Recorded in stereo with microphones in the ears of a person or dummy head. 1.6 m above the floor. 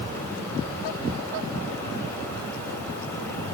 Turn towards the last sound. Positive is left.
No sound to turn to.